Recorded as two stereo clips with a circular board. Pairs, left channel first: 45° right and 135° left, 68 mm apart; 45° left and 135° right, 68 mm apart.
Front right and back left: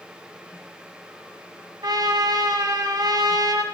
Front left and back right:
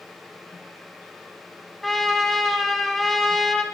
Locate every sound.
1.8 s a trumpet: 130° left, 1.6 m